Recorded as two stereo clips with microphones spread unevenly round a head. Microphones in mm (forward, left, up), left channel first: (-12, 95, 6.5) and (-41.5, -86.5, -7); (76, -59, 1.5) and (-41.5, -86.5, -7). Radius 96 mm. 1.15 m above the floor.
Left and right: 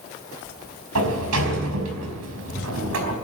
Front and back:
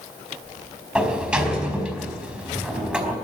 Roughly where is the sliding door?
Right.